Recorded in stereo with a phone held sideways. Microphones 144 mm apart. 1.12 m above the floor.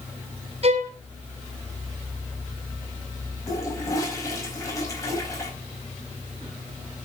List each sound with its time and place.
0.6 s a violin: 45° right (ahead or behind), 3.5 m
3.5 s a toilet flushing: 25° left (ahead or behind), 4.5 m